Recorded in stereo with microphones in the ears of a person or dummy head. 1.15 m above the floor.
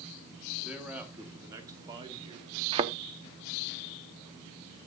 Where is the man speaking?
5° right (ahead or behind), 2.0 m; by 2.6 s 30° right (ahead or behind), 2.5 m.